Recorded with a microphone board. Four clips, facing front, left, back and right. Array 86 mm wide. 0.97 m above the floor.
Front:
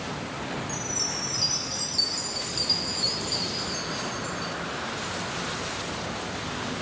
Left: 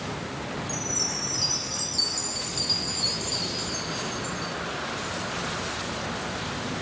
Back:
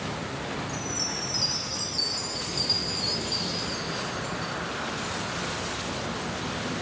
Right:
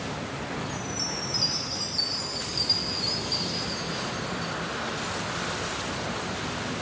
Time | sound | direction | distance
0.7 | a chime | 55° left | 3.5 m